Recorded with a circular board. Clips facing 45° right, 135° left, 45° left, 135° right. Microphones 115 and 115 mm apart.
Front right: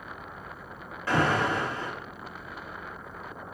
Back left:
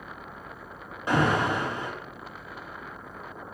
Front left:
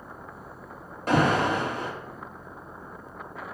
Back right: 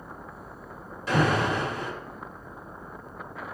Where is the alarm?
65° left, 2 m.